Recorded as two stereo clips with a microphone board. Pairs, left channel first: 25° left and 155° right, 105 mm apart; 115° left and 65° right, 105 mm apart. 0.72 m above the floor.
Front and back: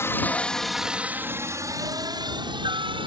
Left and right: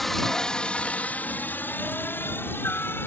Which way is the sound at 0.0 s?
25° left.